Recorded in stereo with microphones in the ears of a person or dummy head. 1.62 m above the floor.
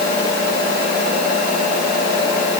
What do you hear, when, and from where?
Only background noise.